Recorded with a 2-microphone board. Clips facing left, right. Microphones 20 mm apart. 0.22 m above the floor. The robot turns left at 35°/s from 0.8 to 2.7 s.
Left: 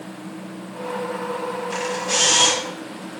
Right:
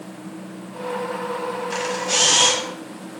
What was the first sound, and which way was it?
A camera shutter, 165° right.